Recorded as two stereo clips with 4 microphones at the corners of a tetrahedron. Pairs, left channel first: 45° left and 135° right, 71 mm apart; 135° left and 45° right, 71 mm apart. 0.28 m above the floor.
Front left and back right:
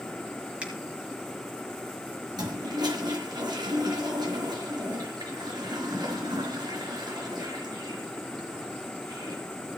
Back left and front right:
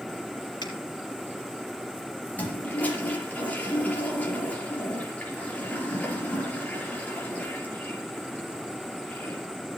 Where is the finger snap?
150° left, 4 m.